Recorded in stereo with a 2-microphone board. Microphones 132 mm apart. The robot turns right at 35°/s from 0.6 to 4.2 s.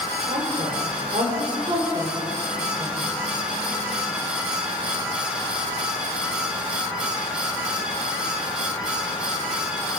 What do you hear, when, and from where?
0.3 s a woman speaking: 75° right (ahead or behind), 4 m; by 3.0 s 15° right (ahead or behind), 4 m